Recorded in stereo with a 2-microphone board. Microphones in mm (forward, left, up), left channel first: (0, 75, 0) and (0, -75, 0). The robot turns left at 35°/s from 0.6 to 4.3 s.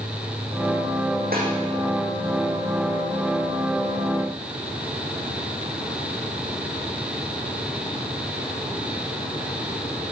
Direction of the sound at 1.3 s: 80° right.